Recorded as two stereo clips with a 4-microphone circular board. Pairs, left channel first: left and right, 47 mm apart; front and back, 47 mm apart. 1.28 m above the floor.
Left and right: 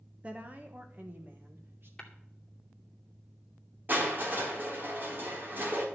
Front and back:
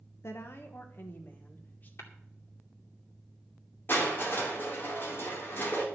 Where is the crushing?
45° right, 3.5 m.